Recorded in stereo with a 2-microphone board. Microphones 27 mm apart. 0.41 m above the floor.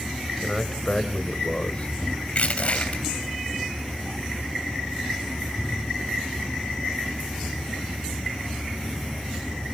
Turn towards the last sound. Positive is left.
turn(degrees=50)  # may be behind; listen again after turning